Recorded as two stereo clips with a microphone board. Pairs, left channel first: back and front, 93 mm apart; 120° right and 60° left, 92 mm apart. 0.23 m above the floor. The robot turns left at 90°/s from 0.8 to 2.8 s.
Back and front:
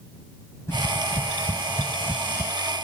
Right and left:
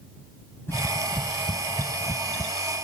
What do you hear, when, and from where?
0.7 s tapping: 155° right; by 2.5 s 50° left